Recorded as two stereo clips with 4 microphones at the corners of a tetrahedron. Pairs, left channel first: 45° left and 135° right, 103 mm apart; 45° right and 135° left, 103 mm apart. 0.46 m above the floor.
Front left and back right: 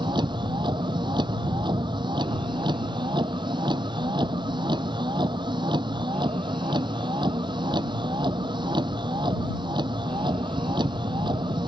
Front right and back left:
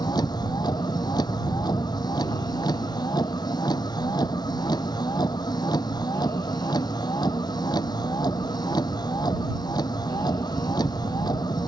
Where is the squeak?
I don't hear a squeak.